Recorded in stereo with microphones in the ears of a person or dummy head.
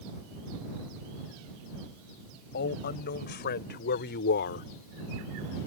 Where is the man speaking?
50° left (ahead or behind); by 4.7 s 55° left (ahead or behind).